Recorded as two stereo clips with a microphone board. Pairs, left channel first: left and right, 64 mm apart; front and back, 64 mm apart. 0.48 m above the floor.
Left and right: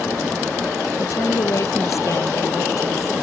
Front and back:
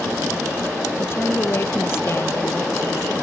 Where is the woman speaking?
55° left; by 3.1 s 50° left.